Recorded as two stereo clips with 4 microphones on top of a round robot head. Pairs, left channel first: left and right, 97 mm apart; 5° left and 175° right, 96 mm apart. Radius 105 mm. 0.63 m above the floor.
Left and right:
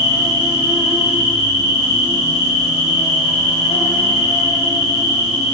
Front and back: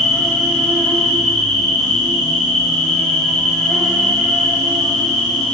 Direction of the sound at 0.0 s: 85° left.